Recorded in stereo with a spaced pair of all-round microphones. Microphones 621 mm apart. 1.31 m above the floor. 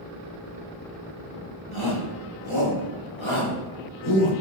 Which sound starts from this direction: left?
A shout, at 1.7 s.